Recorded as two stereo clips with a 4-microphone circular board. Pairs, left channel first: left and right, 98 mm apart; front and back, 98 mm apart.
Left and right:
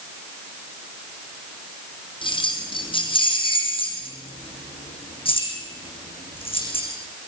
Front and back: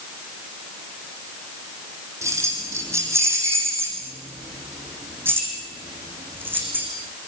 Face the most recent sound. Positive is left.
turn(degrees=110)